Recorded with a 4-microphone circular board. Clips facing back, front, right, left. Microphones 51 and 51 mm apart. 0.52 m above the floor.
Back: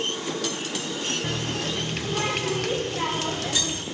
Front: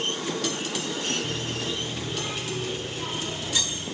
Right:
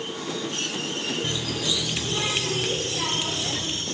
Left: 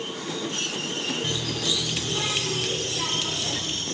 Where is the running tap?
165° right, 0.6 m.